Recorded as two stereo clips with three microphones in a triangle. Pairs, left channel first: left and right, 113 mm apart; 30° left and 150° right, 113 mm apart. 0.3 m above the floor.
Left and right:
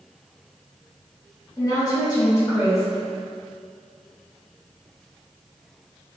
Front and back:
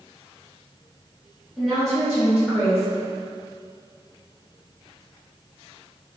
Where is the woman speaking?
120° left, 1.8 m.